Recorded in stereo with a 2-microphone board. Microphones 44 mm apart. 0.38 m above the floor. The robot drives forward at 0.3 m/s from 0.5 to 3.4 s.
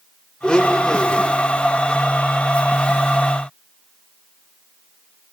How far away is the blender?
About 0.6 m.